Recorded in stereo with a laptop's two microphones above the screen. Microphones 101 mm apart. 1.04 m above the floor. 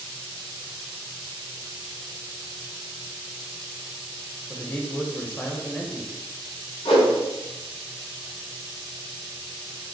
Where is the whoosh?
75° left (ahead or behind), 1.2 m.